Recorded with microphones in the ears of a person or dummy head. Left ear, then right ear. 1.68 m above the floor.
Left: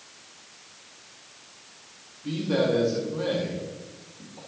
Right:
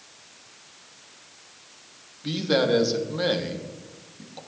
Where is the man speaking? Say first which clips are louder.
Right 3 dB; 40° right (ahead or behind), 1.1 m.